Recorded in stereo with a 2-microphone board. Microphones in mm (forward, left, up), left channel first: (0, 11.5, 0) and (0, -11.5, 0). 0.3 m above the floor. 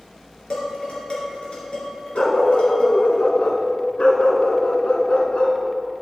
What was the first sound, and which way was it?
Dishes clattering, 55° left (ahead or behind).